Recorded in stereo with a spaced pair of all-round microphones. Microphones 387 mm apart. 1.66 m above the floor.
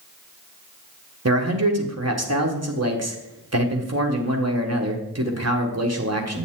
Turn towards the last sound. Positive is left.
turn(degrees=-40)  # may be behind; listen again after turning